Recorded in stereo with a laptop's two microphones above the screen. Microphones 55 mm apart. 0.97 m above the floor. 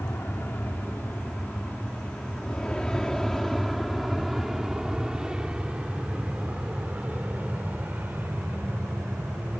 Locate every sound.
0.0 s an aircraft: 40° left (ahead or behind); by 9.6 s 40° right (ahead or behind)